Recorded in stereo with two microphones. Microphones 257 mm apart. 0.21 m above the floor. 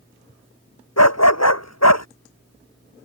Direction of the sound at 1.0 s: 80° left.